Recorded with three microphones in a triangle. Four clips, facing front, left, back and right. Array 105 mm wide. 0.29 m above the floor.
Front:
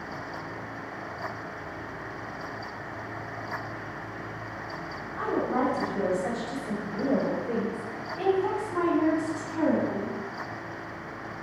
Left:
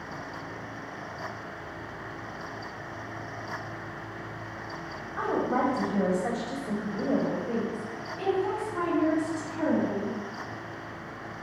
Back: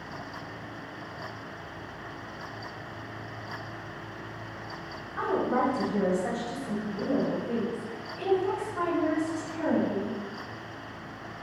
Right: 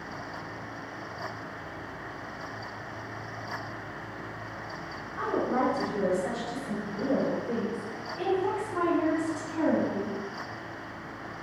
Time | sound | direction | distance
5.2 | a woman speaking | 120° left | 2 m